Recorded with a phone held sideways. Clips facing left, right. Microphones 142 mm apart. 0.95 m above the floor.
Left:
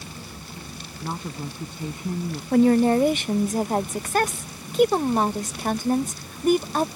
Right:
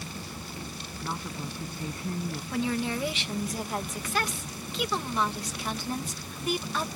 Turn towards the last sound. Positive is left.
turn(degrees=50)  # may be behind; listen again after turning